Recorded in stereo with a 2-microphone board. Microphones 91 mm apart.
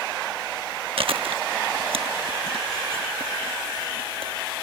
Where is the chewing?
75° right (ahead or behind).